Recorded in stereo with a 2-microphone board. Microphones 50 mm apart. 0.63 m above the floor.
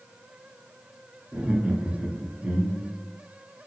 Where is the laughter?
25° right (ahead or behind), 0.7 m.